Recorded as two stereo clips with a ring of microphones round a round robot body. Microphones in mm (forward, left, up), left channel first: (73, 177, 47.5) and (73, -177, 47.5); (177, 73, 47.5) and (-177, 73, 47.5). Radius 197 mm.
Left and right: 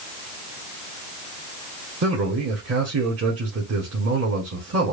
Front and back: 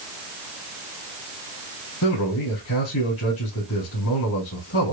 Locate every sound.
2.0 s a man speaking: 45° right, 2 m